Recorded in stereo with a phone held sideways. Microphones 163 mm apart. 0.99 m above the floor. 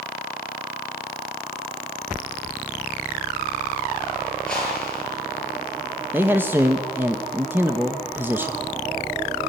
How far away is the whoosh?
About 9.5 m.